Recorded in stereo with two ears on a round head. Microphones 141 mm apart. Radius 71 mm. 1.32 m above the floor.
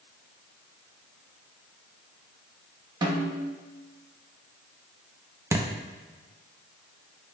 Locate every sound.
3.0 s a snare drum: 30° right (ahead or behind), 1.1 m
5.5 s a thud: 20° right (ahead or behind), 0.6 m